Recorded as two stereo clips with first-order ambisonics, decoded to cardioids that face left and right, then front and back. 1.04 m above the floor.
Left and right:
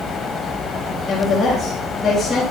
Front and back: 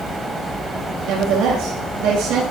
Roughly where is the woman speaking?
Behind.